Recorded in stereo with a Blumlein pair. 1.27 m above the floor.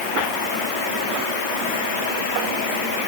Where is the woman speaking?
I don't hear a woman speaking.